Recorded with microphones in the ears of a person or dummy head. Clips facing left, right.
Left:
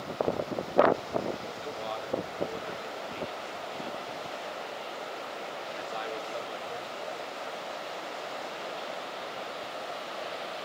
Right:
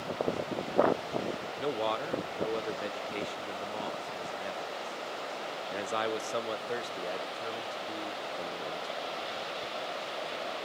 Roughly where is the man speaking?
Right.